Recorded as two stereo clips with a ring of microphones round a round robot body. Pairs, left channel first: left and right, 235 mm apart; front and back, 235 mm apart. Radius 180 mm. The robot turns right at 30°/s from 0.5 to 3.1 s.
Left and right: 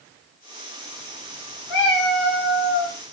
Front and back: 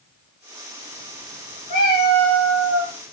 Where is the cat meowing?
50° left, 1.9 m; by 3.0 s 90° left, 1.9 m.